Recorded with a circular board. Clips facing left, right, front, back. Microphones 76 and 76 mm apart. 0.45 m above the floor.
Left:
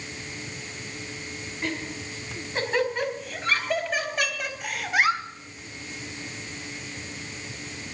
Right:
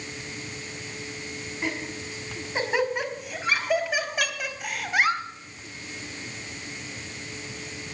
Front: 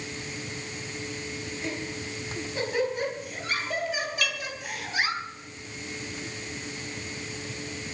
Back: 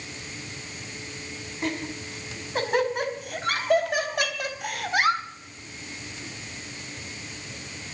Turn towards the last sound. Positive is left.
turn(degrees=-120)